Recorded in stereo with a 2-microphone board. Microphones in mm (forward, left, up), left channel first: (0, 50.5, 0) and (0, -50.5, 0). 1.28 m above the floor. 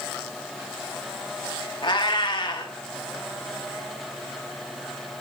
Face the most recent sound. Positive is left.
turn(degrees=50)  # may be behind; listen again after turning